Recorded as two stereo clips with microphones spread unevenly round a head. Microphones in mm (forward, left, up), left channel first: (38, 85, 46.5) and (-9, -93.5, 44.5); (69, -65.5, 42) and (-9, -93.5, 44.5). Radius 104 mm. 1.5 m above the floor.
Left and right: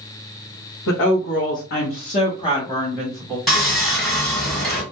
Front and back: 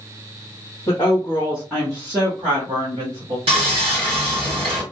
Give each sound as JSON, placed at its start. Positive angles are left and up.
{"t": 0.9, "sound": "a woman speaking", "azimuth_deg": 80, "distance_m": 0.9}
{"t": 3.5, "sound": "sawing", "azimuth_deg": 165, "distance_m": 1.1}